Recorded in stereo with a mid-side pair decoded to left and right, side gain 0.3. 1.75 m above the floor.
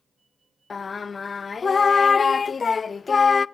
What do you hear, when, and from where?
0.7 s singing: 50° left, 0.6 m